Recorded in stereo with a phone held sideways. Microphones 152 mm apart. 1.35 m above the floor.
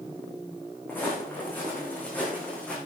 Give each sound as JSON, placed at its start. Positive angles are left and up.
{"t": 0.9, "sound": "footsteps", "side_deg": 15, "distance_m": 7.0}